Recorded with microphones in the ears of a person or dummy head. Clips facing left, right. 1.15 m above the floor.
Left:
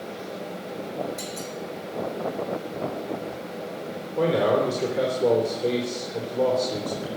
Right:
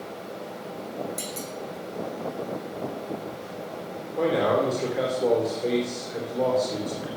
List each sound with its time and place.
1.2 s a clunk: 45° right (ahead or behind), 3 m
4.2 s a man speaking: 5° right (ahead or behind), 3.5 m